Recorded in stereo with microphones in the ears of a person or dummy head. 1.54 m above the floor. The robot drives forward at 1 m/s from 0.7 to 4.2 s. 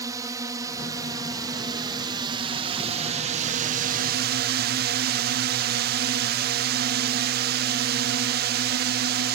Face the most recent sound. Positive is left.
turn(degrees=-55)  # may be behind; listen again after turning